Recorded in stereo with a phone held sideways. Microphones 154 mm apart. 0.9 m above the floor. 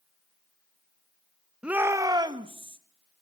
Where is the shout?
5° right (ahead or behind), 1.0 m; by 2.8 s 35° right (ahead or behind), 1.8 m.